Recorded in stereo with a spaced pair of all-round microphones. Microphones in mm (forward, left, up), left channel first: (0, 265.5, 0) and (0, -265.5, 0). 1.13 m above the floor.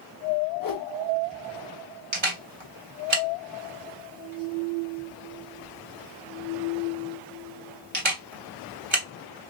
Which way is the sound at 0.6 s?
40° left (ahead or behind).